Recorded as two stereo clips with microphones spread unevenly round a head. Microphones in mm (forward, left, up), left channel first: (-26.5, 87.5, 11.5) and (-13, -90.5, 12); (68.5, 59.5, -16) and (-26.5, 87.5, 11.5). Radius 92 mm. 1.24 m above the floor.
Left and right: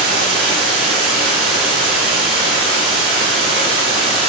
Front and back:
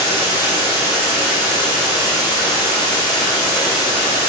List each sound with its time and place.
0.0 s running water: 60° right, 1.3 m